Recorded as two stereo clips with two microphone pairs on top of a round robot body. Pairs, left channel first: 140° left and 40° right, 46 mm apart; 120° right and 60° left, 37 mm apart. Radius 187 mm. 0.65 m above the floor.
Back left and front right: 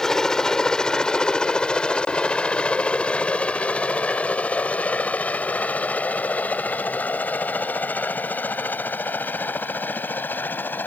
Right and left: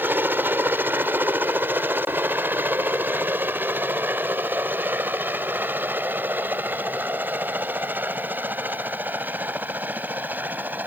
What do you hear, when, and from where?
0.0 s a helicopter: 60° left; by 10.9 s 95° left